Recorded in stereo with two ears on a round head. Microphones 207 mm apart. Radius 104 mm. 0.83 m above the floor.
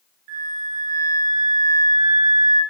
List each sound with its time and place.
0.3 s a flute: 70° right (ahead or behind), 2 m